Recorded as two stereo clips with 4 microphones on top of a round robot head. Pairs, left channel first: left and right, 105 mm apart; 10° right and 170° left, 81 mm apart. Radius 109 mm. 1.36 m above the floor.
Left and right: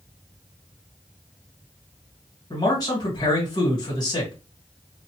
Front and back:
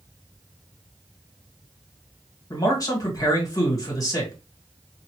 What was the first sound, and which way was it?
A man speaking, 40° left.